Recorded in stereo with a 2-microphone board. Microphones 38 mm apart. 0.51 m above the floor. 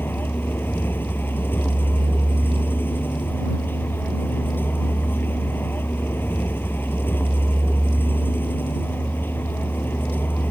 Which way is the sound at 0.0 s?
85° left.